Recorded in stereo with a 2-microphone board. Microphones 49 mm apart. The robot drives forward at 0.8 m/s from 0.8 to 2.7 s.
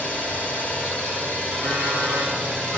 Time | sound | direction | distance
0.0 | an engine running | 35° left (ahead or behind) | 2 m
1.6 | an alarm clock | 65° left (ahead or behind) | 1.8 m